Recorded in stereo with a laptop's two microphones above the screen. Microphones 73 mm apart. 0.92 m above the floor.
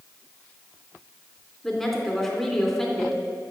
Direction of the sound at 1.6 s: 5° left (ahead or behind).